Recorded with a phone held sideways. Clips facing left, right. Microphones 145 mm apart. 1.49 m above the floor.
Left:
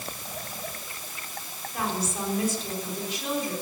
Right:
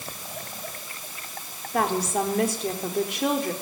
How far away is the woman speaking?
About 4.5 m.